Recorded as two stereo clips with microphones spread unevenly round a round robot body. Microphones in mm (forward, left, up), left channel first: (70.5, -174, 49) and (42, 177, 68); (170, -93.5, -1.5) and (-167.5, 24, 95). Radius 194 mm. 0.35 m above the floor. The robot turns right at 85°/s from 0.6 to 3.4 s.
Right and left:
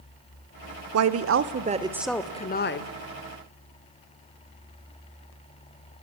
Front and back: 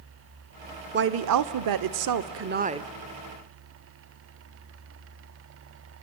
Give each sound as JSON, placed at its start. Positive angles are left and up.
{"t": 0.9, "sound": "a woman speaking", "azimuth_deg": 95, "distance_m": 1.0}